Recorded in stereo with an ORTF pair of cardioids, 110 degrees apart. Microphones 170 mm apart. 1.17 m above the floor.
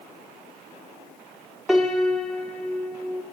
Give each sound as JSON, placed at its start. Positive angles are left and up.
{"t": 1.7, "sound": "a piano", "azimuth_deg": -5, "distance_m": 1.9}